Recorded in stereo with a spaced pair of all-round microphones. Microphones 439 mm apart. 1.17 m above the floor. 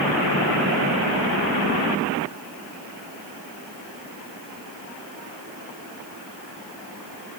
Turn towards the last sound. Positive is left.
No sound to turn to.